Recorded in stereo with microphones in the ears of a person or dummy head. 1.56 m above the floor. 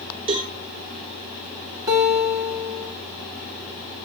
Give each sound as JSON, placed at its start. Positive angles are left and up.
{"t": 0.3, "sound": "a cowbell", "side_deg": -30, "distance_m": 2.5}
{"t": 1.9, "sound": "a guitar", "side_deg": -10, "distance_m": 1.8}